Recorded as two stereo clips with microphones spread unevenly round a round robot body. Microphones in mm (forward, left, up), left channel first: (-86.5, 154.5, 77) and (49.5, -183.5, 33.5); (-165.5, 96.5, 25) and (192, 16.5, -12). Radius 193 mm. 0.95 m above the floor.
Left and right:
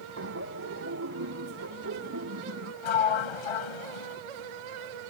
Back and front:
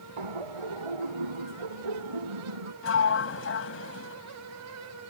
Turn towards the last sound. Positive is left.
turn(degrees=110)